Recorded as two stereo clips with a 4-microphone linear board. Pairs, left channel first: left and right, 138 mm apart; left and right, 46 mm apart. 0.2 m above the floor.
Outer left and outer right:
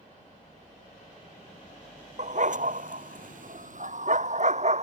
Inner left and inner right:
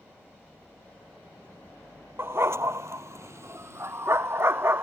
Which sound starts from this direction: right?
A dog barking, at 2.2 s.